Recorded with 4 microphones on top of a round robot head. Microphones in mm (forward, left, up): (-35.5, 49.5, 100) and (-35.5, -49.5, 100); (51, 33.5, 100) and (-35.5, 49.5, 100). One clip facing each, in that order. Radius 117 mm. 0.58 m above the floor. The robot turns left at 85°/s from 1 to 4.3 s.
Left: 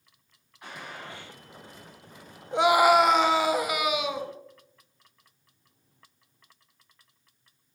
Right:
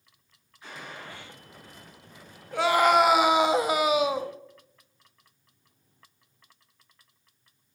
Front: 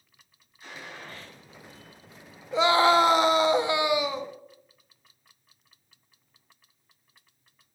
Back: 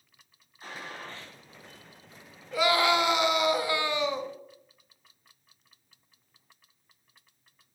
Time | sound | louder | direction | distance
0.6 | a gunshot | left 1 dB, back 2 dB | 120° left | 5.5 m
2.5 | a scream | left 2 dB, front 4 dB | 40° left | 1.2 m